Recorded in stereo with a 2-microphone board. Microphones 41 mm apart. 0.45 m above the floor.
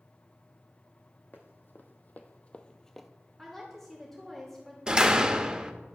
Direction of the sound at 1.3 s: 55° left (ahead or behind).